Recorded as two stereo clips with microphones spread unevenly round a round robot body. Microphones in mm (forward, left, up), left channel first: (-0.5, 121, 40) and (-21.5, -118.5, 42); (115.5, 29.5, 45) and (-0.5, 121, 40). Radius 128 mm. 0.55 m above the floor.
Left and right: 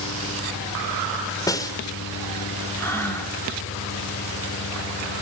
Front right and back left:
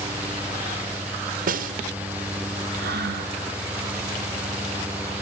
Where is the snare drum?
160° left, 1.6 m.